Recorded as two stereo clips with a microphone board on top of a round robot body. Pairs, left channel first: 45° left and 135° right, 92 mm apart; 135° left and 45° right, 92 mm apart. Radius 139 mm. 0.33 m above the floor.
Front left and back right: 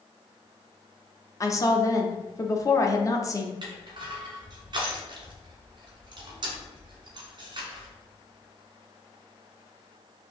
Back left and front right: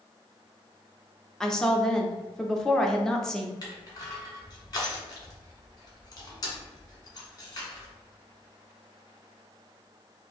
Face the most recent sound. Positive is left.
turn(degrees=-175)